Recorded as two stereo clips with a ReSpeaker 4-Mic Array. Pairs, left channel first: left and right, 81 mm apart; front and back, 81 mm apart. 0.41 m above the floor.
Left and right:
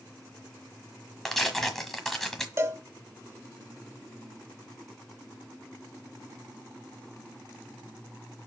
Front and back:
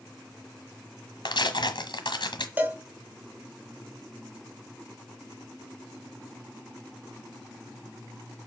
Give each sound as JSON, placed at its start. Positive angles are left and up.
{"t": 1.2, "sound": "tearing paper", "azimuth_deg": 5, "distance_m": 1.3}
{"t": 2.6, "sound": "a cowbell", "azimuth_deg": -125, "distance_m": 0.9}